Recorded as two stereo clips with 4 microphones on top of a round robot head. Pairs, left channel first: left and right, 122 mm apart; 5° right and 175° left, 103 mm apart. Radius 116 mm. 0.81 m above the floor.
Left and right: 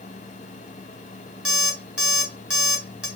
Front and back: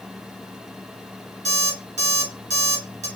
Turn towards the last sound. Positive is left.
turn(degrees=-170)